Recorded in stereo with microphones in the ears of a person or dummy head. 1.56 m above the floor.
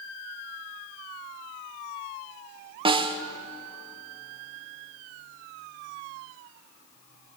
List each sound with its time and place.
2.9 s a snare drum: 30° right (ahead or behind), 1.4 m